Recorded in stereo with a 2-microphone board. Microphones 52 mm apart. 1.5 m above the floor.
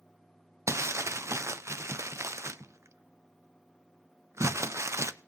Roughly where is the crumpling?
Right.